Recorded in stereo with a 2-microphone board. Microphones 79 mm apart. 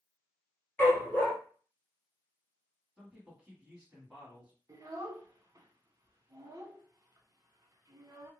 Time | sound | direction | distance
0.8 | a dog barking | 20° left (ahead or behind) | 1.3 m
3.0 | a man speaking | 10° right (ahead or behind) | 1.4 m
4.7 | a child speaking | 40° right (ahead or behind) | 0.8 m